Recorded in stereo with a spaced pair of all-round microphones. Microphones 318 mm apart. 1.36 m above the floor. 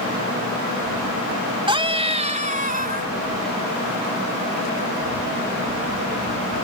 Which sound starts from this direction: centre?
A scream, at 1.7 s.